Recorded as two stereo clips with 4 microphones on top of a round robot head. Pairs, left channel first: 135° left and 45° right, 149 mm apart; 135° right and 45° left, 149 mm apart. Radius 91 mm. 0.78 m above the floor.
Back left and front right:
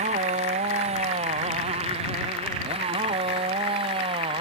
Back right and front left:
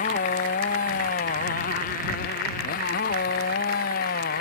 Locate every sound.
0.0 s a motorcycle: 95° right; by 4.4 s 100° right